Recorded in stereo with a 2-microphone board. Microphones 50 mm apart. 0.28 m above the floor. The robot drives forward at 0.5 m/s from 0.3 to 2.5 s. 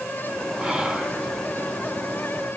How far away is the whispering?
About 2.5 m.